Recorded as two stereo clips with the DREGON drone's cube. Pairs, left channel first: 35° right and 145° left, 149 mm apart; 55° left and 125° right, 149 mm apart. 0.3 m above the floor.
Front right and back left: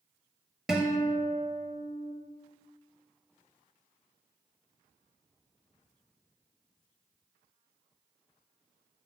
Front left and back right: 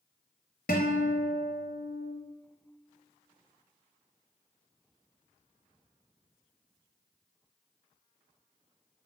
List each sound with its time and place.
0.7 s a guitar: 55° left, 0.9 m